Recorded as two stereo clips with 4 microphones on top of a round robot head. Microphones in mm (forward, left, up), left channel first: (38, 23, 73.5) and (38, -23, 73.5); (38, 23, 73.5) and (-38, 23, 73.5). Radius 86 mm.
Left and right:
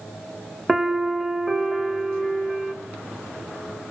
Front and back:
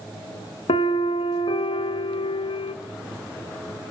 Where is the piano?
5° right, 1.2 m.